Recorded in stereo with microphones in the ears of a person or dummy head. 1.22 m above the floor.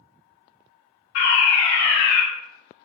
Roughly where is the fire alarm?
Left.